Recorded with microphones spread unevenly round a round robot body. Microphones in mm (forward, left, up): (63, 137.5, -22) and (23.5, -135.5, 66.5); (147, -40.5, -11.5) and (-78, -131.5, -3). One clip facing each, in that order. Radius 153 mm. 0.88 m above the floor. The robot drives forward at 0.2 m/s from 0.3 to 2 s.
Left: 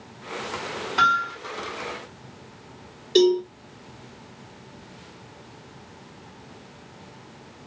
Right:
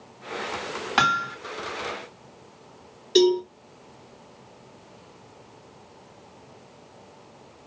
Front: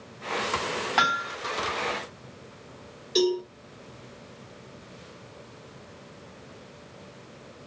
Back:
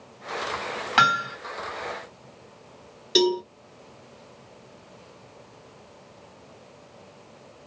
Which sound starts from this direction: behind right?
Hammering, at 1.0 s.